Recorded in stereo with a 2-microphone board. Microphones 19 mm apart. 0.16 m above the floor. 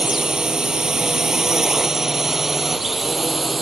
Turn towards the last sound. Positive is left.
turn(degrees=-5)  # may be behind; listen again after turning